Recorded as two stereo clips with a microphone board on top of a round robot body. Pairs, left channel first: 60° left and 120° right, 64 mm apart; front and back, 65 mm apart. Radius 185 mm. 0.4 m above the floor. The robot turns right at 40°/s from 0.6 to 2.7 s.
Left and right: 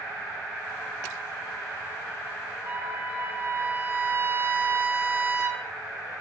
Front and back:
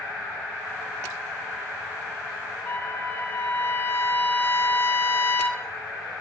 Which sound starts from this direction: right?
A trumpet, at 2.6 s.